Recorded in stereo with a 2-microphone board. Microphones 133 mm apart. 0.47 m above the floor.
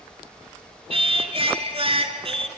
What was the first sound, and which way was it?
Singing, 45° right (ahead or behind).